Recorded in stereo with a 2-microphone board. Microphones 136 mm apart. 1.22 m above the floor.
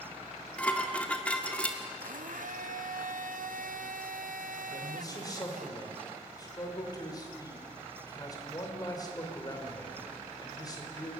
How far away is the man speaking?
About 4 m.